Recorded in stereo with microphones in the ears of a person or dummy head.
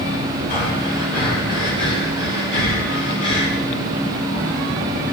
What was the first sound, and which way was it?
Breathing, 60° left (ahead or behind).